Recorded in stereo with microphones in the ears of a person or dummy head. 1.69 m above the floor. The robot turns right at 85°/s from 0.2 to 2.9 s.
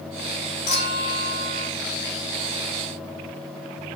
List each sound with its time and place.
0.7 s a clink: 30° left, 1.5 m; by 1.7 s 120° left, 1.5 m